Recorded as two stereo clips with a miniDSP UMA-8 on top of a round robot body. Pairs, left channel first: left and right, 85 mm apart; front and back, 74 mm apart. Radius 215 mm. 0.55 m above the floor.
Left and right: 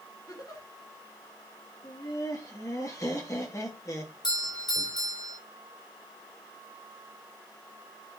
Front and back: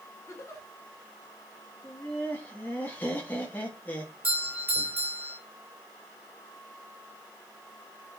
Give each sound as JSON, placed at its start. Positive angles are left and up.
{"t": 0.3, "sound": "a giggle", "azimuth_deg": 50, "distance_m": 1.9}
{"t": 1.8, "sound": "laughter", "azimuth_deg": 60, "distance_m": 1.8}
{"t": 4.2, "sound": "a doorbell", "azimuth_deg": 115, "distance_m": 3.5}